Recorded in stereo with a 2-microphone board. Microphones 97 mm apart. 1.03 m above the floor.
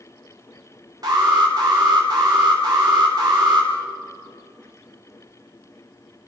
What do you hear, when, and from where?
1.0 s an alarm: 40° right (ahead or behind), 5.5 m